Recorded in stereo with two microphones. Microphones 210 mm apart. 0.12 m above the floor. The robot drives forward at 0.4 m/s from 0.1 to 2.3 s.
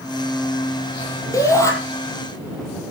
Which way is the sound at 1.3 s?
15° left (ahead or behind).